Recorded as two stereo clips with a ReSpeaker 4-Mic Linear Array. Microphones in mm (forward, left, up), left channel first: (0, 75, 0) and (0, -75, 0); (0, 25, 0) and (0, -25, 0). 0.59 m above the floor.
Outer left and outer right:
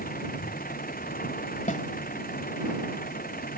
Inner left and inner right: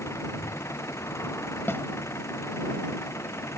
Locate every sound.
0.0 s an engine running: 65° left (ahead or behind)
1.7 s a snare drum: 55° left (ahead or behind)